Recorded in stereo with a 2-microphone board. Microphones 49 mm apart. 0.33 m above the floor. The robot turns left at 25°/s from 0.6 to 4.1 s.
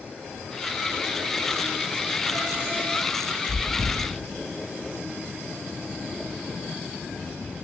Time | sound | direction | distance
3.5 | chewing | centre (ahead or behind) | 2 m